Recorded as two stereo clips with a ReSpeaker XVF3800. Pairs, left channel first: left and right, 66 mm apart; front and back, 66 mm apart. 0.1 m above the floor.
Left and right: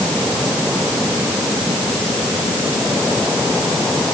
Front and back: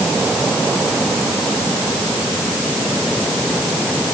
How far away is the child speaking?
I don't hear a child speaking.